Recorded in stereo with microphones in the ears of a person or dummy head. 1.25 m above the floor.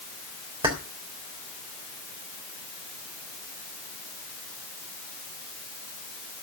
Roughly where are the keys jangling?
Right.